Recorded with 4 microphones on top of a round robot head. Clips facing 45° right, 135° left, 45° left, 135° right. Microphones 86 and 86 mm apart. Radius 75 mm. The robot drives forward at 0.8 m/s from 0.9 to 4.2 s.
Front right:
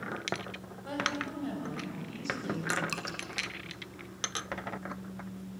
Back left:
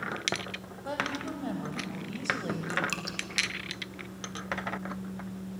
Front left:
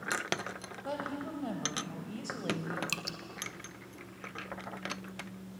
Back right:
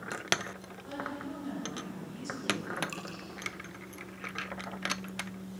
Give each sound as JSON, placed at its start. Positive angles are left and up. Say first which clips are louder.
{"t": 0.8, "sound": "a woman speaking", "louder": "back left 1 dB, front left 1 dB", "azimuth_deg": 70, "distance_m": 5.0}
{"t": 2.9, "sound": "dripping", "louder": "back left 1 dB, even", "azimuth_deg": 40, "distance_m": 0.8}